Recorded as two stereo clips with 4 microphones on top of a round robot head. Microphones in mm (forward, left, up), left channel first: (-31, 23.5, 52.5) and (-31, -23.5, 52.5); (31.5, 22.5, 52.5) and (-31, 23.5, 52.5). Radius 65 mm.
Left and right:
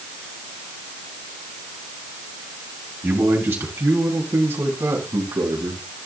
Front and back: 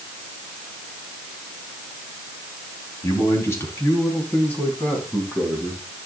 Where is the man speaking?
45° right, 4 m; by 5.8 s 75° right, 4.5 m.